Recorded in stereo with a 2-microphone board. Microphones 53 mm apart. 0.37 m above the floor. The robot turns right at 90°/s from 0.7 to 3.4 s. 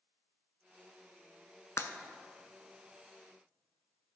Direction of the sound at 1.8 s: 70° left (ahead or behind).